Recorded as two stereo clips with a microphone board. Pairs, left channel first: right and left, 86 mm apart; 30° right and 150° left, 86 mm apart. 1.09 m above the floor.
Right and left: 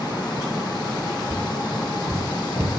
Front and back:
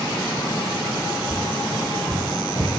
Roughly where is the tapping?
Right.